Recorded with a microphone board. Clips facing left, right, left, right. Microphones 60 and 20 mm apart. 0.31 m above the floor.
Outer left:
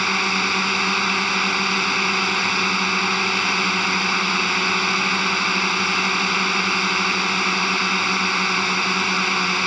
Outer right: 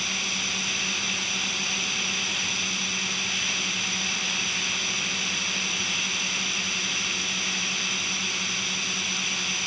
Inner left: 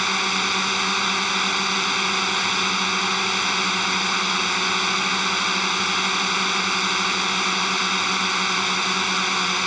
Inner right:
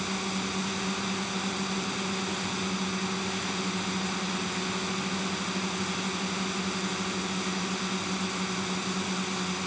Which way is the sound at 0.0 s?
55° left (ahead or behind).